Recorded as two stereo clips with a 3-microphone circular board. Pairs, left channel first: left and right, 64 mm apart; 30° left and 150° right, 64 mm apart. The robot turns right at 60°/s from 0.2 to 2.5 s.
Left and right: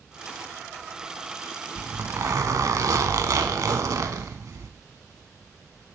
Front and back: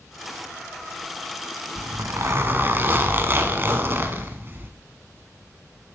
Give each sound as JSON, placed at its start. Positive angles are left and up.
{"t": 1.8, "sound": "a zipper", "azimuth_deg": -140, "distance_m": 0.6}